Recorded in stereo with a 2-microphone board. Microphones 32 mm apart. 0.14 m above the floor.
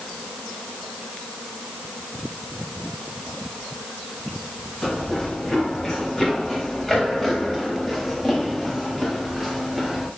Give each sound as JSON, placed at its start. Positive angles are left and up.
{"t": 4.8, "sound": "running footsteps", "side_deg": 20, "distance_m": 8.0}